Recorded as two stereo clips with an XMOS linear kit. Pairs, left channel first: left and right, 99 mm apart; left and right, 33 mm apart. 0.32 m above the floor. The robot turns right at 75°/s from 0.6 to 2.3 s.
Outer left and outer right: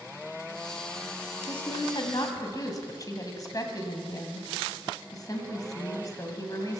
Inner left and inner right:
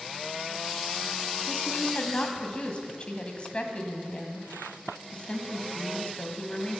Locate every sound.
1.5 s a woman speaking: 70° left, 2.0 m; by 6.8 s 135° left, 2.0 m